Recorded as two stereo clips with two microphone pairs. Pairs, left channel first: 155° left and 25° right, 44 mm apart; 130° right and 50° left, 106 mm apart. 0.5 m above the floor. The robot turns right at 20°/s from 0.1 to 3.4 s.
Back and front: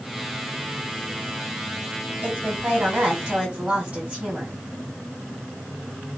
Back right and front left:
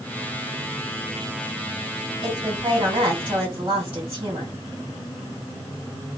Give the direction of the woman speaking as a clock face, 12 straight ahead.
12 o'clock.